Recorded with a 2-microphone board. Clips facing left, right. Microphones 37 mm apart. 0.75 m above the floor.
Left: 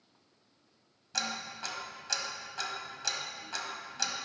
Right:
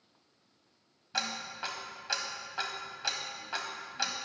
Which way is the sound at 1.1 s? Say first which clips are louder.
Right 1 dB; 20° right (ahead or behind).